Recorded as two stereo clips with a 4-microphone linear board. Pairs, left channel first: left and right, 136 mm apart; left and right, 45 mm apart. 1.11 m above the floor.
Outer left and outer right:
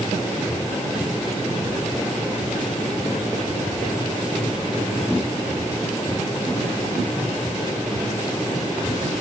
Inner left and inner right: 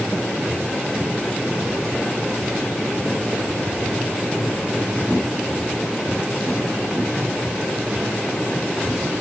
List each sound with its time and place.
Only background noise.